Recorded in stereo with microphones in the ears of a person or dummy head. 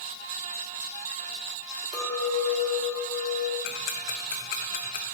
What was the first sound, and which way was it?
A clink, centre (ahead or behind).